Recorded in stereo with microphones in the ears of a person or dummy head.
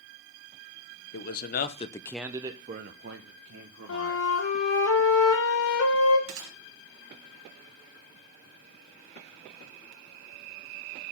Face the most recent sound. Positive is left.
turn(degrees=-60)  # may be behind; listen again after turning